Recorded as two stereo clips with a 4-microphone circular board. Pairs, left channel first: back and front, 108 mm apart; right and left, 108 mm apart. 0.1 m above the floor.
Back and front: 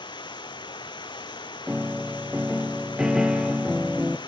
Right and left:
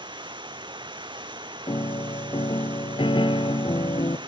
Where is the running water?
135° left, 0.9 m.